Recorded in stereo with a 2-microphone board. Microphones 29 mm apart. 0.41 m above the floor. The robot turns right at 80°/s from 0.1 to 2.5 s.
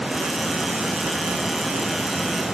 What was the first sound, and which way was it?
Only background noise.